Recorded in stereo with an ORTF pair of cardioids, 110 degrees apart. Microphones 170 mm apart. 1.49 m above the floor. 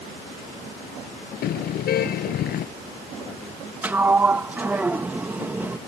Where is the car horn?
65° left.